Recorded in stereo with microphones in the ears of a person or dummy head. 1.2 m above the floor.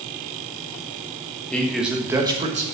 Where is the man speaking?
10° left (ahead or behind), 1.5 m; by 2.6 s 35° right (ahead or behind), 1.4 m.